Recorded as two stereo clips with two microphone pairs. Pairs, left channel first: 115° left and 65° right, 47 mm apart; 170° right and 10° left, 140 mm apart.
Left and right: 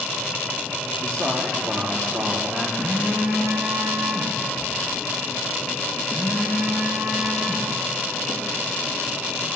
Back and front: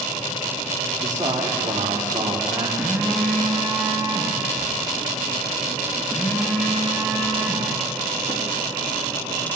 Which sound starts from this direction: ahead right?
A man speaking, at 1.0 s.